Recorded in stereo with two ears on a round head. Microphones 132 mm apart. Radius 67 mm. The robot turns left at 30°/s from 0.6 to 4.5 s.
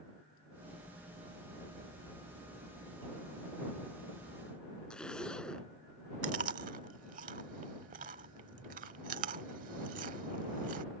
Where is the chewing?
60° right (ahead or behind).